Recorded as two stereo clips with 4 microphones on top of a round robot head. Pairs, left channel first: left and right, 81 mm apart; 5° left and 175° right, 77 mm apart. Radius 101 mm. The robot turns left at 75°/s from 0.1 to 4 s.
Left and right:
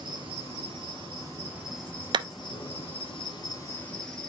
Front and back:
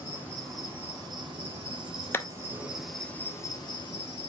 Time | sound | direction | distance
0.0 | an insect | 55° right | 3 m
2.1 | a clap | 60° right | 0.7 m